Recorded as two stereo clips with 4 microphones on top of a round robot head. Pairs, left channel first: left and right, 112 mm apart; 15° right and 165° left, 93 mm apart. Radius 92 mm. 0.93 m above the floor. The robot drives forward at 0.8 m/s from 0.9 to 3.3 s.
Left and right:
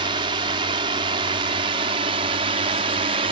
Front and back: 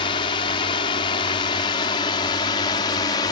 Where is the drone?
45° right; by 3.3 s 55° right.